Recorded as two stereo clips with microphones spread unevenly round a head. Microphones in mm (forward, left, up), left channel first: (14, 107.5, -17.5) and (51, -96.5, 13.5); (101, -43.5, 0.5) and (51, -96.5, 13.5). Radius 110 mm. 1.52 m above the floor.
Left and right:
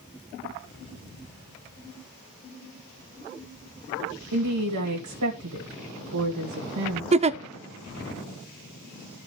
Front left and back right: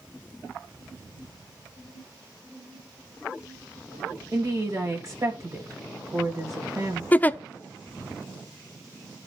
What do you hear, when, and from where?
4.3 s a woman speaking: 85° right, 2.5 m
7.1 s a giggle: 15° right, 0.6 m